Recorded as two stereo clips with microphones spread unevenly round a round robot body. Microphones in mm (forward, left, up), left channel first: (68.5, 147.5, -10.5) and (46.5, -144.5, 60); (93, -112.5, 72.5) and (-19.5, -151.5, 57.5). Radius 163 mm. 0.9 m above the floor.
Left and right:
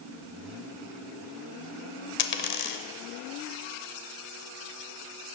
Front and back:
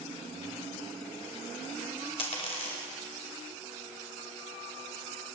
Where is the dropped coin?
30° left, 0.8 m.